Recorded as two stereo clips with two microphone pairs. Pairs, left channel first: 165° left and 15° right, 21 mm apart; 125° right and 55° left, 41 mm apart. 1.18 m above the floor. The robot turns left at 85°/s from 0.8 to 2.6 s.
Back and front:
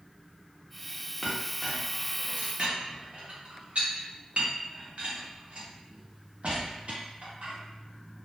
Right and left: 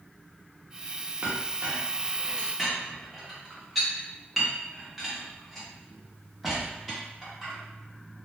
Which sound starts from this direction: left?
A clink, at 1.2 s.